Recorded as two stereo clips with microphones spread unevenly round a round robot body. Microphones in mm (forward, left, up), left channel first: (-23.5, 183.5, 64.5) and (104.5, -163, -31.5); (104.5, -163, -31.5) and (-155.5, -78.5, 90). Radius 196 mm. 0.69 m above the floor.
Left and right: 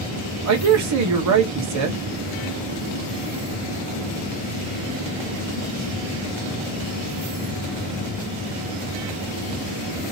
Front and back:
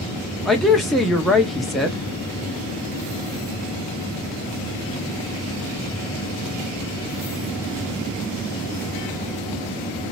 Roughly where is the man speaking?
Right.